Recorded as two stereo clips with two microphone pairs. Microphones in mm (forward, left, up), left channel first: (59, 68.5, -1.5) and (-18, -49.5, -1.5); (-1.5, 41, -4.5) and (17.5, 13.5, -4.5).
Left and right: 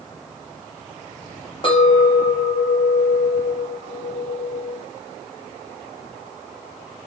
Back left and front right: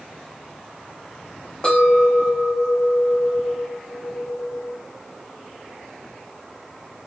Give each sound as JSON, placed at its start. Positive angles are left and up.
{"t": 1.6, "sound": "a clink", "azimuth_deg": 80, "distance_m": 0.8}